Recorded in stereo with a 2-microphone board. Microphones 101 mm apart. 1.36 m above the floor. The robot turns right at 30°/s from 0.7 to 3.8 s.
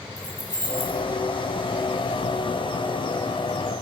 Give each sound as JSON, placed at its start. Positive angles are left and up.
{"t": 0.2, "sound": "keys jangling", "side_deg": 40, "distance_m": 1.3}